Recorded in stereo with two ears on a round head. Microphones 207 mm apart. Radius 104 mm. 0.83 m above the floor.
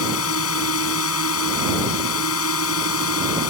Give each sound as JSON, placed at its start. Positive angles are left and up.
{"t": 0.0, "sound": "a drone", "side_deg": 70}